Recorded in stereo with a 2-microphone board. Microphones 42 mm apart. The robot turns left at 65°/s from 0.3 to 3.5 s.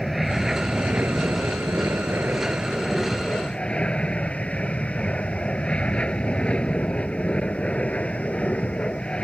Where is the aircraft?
Straight ahead; by 9.2 s 150° left.